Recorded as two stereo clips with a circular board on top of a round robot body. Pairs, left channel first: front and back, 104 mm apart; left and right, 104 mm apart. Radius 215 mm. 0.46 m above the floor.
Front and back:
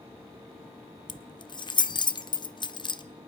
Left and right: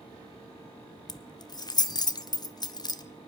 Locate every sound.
1.1 s keys jangling: 40° left, 1.0 m